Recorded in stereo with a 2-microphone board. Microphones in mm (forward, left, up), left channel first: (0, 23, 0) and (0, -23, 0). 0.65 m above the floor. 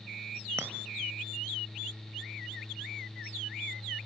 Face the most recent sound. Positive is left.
turn(degrees=-80)